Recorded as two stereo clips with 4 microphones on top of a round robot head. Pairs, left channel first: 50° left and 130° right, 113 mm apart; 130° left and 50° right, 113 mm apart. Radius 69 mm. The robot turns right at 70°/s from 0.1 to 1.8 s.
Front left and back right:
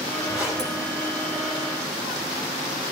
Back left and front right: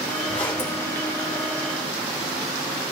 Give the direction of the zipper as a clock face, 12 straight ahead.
7 o'clock.